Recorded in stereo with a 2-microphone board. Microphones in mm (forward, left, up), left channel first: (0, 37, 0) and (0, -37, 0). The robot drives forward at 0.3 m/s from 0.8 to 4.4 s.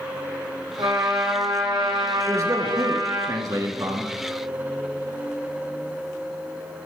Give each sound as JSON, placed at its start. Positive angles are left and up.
{"t": 0.8, "sound": "a trumpet", "side_deg": -55, "distance_m": 9.0}
{"t": 2.3, "sound": "a man speaking", "side_deg": -50, "distance_m": 3.0}